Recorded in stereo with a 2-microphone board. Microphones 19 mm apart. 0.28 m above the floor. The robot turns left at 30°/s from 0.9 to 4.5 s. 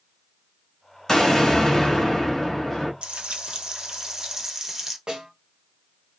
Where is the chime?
No chime in this recording.